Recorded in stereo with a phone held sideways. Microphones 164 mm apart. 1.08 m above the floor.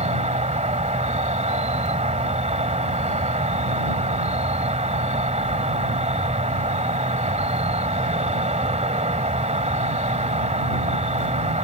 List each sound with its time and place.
0.0 s an insect: 45° right (ahead or behind)